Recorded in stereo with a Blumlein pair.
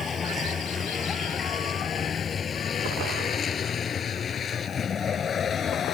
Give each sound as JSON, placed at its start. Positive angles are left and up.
{"t": 0.0, "sound": "a vehicle", "azimuth_deg": 20}